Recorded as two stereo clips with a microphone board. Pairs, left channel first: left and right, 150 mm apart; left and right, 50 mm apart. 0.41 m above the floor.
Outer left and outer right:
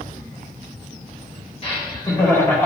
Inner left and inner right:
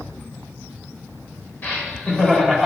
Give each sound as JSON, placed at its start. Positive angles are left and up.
{"t": 1.6, "sound": "laughter", "side_deg": 40, "distance_m": 1.3}